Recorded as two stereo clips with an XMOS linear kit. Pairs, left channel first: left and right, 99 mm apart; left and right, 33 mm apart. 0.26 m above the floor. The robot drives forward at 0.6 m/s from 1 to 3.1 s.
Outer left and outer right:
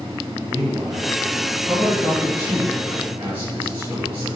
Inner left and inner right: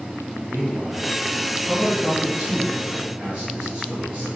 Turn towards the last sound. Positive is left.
turn(degrees=-15)  # may be behind; listen again after turning